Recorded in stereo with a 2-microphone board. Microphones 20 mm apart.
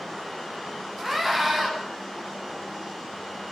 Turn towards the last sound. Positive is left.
turn(degrees=0)  # may be behind; listen again after turning